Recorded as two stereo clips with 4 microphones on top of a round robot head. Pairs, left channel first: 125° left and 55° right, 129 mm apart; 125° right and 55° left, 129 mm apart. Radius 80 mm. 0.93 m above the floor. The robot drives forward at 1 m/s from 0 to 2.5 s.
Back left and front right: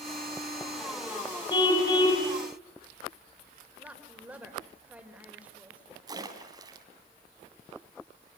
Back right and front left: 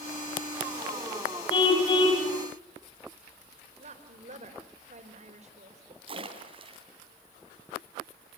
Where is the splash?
5° left, 3.5 m.